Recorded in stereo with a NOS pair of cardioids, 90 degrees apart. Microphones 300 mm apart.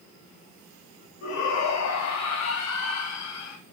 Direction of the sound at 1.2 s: 65° left.